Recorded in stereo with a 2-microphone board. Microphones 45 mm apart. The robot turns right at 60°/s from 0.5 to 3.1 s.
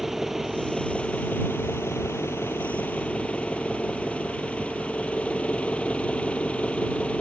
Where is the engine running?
5° right; by 7.2 s 150° left.